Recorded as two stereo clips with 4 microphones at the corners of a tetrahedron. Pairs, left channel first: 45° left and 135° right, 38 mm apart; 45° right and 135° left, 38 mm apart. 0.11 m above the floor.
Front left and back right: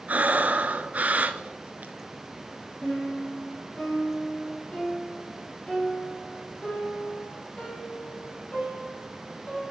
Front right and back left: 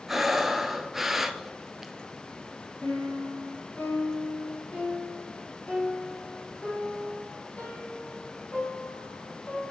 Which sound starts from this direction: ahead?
A piano, at 2.8 s.